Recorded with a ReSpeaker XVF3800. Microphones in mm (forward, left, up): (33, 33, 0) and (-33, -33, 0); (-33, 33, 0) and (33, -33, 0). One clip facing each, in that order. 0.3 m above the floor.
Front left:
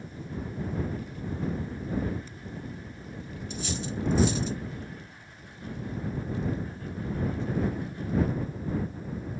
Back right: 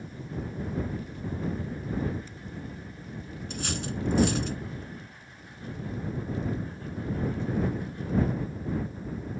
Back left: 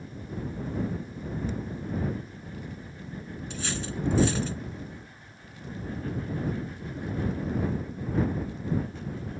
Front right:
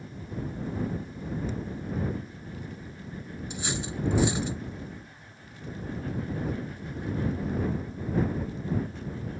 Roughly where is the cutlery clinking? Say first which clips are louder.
Even, even; behind right.